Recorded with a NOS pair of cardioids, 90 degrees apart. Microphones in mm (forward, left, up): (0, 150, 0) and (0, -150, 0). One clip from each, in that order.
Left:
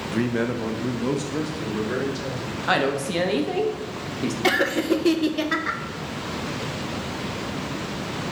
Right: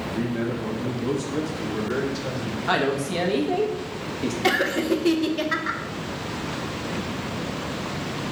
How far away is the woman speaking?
About 0.9 m.